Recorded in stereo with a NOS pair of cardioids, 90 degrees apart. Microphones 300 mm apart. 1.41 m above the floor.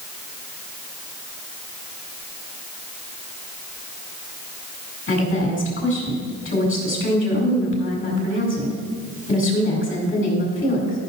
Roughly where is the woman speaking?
Ahead left.